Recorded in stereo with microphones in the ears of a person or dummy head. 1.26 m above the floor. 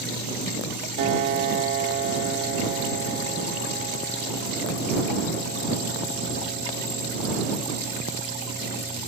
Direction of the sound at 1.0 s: 35° right (ahead or behind).